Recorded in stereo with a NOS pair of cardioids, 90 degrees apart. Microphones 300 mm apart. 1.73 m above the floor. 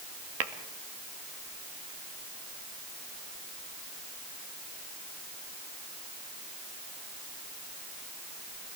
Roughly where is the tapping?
Ahead right.